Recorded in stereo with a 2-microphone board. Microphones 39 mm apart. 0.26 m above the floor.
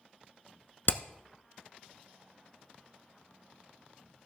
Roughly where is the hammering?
Left.